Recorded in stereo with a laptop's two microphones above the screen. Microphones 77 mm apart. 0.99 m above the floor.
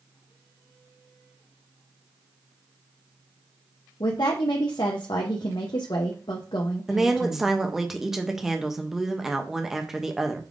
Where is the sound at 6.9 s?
5° right (ahead or behind), 0.5 m.